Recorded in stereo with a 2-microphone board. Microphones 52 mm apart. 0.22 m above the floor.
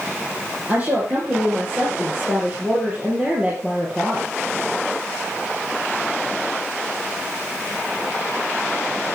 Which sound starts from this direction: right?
A woman speaking, at 0.7 s.